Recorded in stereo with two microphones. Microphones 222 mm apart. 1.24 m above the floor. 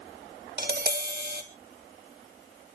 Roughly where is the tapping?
Right.